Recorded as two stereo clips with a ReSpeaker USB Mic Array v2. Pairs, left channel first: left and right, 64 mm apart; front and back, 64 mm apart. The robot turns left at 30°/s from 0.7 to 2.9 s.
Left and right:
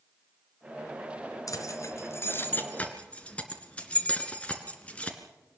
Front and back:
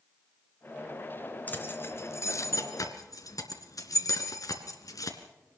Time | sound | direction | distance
1.5 | keys jangling | 60° left | 2.5 m